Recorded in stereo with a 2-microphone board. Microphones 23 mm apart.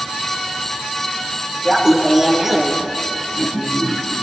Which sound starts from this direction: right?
Laughter, at 1.6 s.